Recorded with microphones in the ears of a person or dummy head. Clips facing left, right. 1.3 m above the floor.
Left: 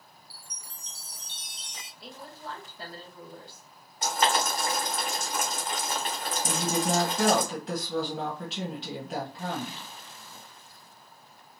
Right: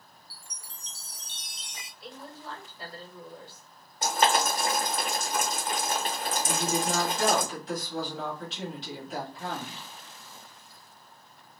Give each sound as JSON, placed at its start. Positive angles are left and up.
{"t": 0.3, "sound": "a chime", "side_deg": -60, "distance_m": 1.1}
{"t": 2.0, "sound": "a woman speaking", "side_deg": 65, "distance_m": 2.0}
{"t": 4.0, "sound": "boiling", "side_deg": -40, "distance_m": 1.3}
{"t": 6.4, "sound": "a woman speaking", "side_deg": 55, "distance_m": 1.5}